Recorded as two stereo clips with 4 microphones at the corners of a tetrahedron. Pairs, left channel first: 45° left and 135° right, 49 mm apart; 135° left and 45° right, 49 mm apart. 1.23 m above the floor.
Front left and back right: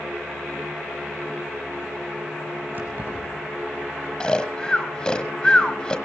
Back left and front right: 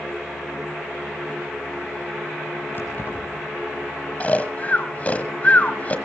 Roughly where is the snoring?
Left.